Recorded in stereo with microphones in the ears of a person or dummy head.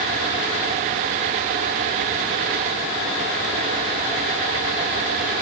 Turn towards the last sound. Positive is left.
No sound to turn to.